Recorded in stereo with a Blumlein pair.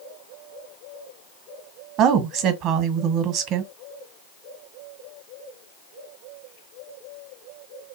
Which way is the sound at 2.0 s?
30° right.